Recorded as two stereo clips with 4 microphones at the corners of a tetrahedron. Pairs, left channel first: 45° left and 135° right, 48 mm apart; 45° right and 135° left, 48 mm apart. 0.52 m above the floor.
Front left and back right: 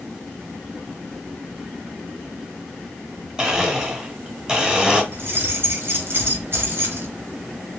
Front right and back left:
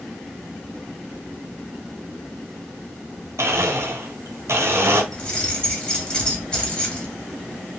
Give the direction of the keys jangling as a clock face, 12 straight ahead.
4 o'clock.